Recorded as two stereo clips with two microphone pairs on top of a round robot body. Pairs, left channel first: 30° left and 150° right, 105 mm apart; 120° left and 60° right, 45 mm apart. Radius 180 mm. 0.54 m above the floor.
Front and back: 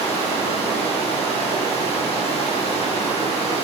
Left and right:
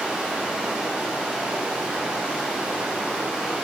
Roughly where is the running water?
Ahead.